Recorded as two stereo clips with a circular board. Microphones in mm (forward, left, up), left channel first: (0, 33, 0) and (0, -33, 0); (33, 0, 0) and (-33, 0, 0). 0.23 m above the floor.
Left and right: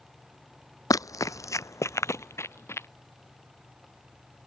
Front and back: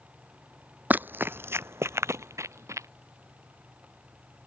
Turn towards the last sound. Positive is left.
turn(degrees=140)